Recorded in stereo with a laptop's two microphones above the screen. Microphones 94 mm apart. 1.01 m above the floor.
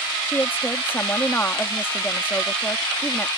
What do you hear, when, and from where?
0.3 s a woman speaking: 20° left (ahead or behind)